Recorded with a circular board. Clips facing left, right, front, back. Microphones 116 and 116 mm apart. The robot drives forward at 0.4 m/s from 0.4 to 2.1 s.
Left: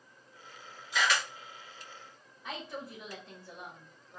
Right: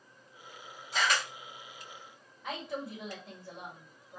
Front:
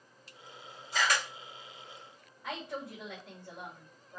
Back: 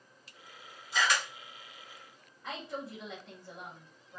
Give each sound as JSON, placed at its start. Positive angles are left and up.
{"t": 0.9, "sound": "a camera shutter", "azimuth_deg": -45, "distance_m": 2.5}
{"t": 2.4, "sound": "a woman speaking", "azimuth_deg": -85, "distance_m": 2.5}